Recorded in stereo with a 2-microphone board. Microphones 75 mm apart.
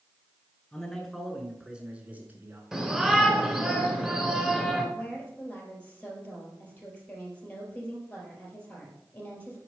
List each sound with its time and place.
0.7 s a man speaking: 10° left (ahead or behind), 1.6 m; by 2.6 s 30° right (ahead or behind), 1.4 m
2.7 s a shout: 5° right (ahead or behind), 1.7 m
5.0 s a woman speaking: 20° left (ahead or behind), 3 m